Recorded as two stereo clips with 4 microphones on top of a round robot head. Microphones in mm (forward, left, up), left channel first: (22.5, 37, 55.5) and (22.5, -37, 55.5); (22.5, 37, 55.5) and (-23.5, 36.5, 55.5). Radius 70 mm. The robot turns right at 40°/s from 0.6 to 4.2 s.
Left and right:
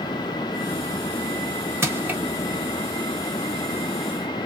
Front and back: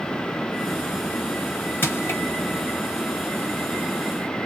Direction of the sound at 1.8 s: 35° right.